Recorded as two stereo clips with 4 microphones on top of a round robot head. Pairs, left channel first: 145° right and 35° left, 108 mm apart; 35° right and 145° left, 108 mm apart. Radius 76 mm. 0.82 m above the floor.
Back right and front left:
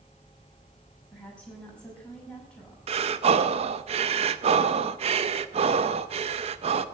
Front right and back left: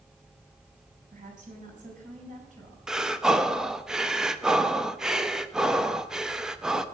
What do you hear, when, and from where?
1.1 s a woman speaking: 135° left, 6 m
2.9 s breathing: 60° left, 0.7 m